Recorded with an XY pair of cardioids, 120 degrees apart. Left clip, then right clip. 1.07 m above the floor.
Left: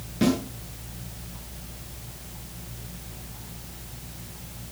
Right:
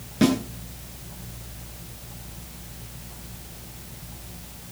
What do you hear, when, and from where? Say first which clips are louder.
0.2 s a snare drum: right 3 dB; 25° right, 10 m